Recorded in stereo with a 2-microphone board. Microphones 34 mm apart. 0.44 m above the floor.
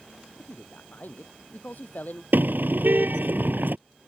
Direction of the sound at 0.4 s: 65° left (ahead or behind).